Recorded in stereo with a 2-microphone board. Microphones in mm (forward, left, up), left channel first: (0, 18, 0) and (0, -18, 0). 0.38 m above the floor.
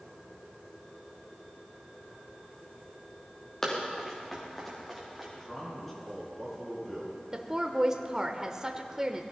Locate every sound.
3.6 s running footsteps: 15° left (ahead or behind), 4.5 m; by 5.3 s centre (ahead or behind), 6 m
5.4 s a man speaking: 10° left (ahead or behind), 5 m
7.3 s a woman speaking: 20° right (ahead or behind), 0.8 m